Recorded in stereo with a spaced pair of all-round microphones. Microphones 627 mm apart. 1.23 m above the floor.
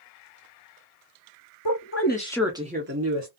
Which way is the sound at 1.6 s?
40° left (ahead or behind).